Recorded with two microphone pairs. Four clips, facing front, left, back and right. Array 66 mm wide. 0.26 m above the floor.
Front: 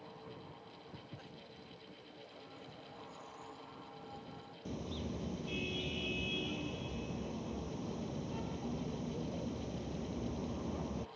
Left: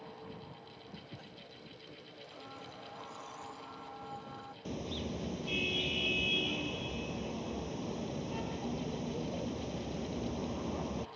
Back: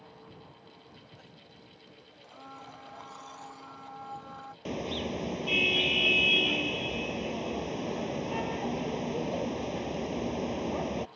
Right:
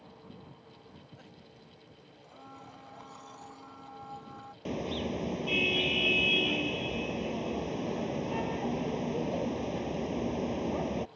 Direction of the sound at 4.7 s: 155° right.